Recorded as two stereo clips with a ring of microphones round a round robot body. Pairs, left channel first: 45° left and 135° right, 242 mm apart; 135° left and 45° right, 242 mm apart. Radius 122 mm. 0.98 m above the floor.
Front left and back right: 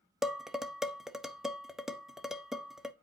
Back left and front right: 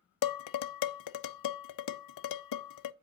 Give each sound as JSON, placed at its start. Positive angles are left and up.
{"t": 0.2, "sound": "dishes clattering", "azimuth_deg": 135, "distance_m": 0.5}